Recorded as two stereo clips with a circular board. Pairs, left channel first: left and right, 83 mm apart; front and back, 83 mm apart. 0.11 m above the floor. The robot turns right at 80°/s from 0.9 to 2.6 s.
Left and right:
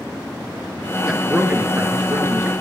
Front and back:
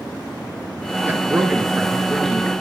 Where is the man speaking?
165° right, 1.6 m; by 2.5 s 50° right, 1.6 m.